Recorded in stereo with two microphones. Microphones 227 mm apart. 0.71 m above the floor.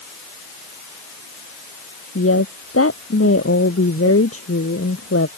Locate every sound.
2.1 s a woman speaking: 85° left; by 5.3 s 80° left